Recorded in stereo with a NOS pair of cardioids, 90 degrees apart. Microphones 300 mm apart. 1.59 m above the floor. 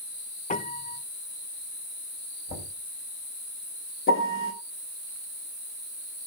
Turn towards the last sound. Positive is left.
turn(degrees=40)